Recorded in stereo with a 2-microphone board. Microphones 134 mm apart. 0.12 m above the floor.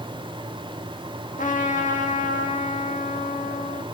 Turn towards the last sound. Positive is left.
turn(degrees=75)  # may be behind; listen again after turning